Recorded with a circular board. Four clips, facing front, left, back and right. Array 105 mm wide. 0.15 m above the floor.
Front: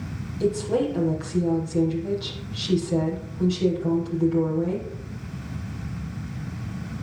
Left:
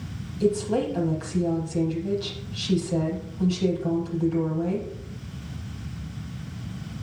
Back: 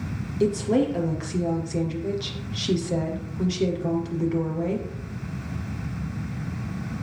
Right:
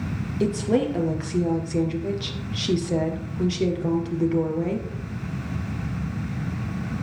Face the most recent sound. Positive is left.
turn(degrees=-120)